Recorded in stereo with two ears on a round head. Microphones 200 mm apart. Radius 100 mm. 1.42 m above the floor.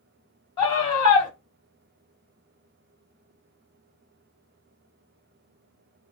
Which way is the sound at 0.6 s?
20° left (ahead or behind).